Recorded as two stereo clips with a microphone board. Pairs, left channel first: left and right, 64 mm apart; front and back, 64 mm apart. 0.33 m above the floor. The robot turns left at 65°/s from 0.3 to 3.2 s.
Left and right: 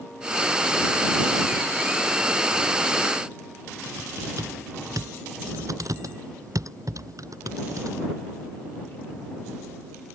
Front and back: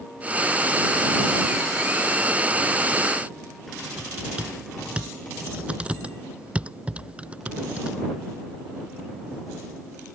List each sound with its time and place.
4.0 s typing on a keyboard: 110° right